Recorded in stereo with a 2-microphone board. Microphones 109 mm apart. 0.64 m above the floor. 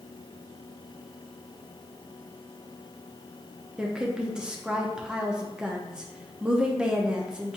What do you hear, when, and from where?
3.8 s a woman speaking: 10° right (ahead or behind), 0.6 m